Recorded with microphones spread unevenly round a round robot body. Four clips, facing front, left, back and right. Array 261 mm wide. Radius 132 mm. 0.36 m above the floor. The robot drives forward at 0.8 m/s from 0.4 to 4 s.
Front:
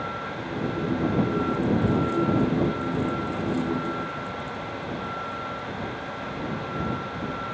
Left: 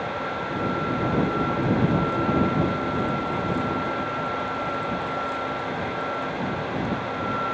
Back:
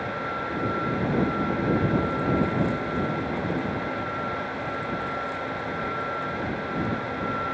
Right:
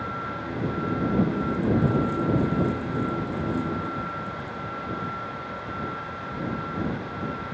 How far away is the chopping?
I don't hear chopping.